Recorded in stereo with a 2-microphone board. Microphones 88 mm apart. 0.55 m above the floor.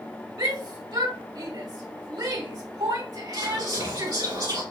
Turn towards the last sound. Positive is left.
turn(degrees=-60)  # may be behind; listen again after turning